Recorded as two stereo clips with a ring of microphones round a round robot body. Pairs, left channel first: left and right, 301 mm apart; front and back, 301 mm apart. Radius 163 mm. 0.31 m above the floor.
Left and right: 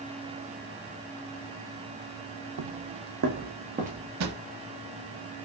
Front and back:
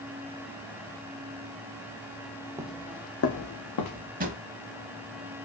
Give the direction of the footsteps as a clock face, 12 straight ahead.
3 o'clock.